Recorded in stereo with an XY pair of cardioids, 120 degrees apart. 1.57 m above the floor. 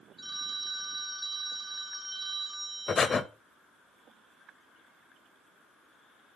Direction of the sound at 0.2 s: 20° right.